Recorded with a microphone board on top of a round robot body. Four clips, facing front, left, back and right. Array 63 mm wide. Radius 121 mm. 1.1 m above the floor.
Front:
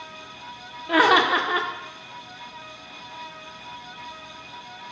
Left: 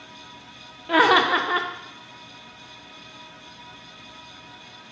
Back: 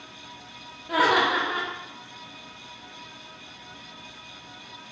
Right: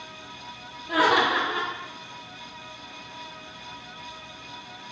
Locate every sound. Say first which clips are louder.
0.9 s laughter: left 3 dB, front 4 dB; 60° left, 0.6 m